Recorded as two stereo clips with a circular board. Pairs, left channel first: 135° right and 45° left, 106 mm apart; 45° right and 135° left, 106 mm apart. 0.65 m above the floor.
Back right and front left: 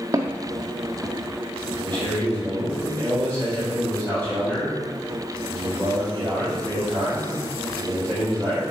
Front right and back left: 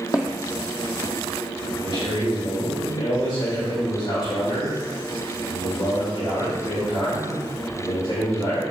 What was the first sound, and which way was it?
Footsteps, 5° right.